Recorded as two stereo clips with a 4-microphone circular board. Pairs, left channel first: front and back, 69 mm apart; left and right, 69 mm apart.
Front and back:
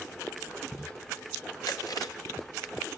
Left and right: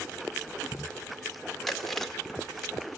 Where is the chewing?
5° left, 1.6 m.